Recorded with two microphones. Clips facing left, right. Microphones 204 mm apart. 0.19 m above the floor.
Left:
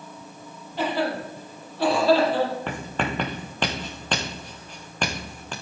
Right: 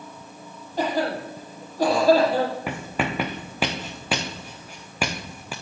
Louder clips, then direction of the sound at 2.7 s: Right 1 dB; 10° right (ahead or behind).